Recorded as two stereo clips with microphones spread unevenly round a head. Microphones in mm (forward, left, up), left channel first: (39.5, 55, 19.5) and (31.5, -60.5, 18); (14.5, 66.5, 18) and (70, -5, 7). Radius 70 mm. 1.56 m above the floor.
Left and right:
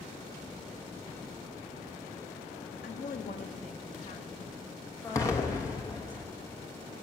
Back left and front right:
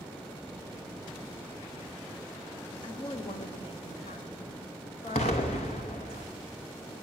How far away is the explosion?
About 1.0 m.